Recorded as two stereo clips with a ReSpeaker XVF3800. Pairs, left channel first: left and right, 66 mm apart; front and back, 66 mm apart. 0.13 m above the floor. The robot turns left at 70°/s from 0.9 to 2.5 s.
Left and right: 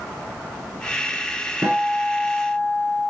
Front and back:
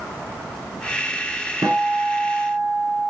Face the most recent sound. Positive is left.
turn(degrees=155)